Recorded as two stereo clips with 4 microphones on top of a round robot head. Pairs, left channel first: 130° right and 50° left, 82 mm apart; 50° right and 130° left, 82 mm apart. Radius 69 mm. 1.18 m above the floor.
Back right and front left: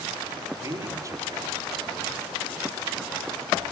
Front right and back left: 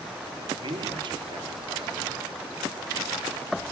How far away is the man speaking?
About 3.5 m.